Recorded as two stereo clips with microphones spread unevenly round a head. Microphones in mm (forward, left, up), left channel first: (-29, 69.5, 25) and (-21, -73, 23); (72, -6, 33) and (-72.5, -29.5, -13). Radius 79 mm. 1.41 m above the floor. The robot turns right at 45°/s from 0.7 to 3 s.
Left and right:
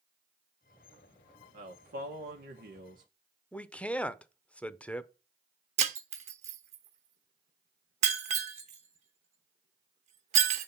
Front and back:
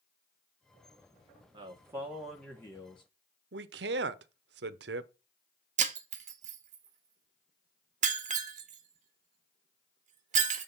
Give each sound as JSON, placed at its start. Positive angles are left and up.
{"t": 1.5, "sound": "a man speaking", "azimuth_deg": -115, "distance_m": 1.4}
{"t": 3.5, "sound": "a man speaking", "azimuth_deg": 175, "distance_m": 0.7}
{"t": 5.8, "sound": "breaking glass", "azimuth_deg": -125, "distance_m": 1.1}